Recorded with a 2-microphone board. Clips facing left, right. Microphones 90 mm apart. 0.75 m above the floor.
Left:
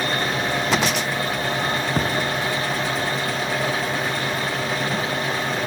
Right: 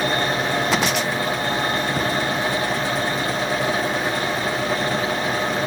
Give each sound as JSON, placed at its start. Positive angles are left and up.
{"t": 2.0, "sound": "a thud", "side_deg": 55, "distance_m": 2.0}